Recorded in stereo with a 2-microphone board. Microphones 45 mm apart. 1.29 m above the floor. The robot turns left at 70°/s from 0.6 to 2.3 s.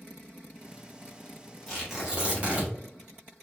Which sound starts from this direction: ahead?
Tearing paper, at 1.7 s.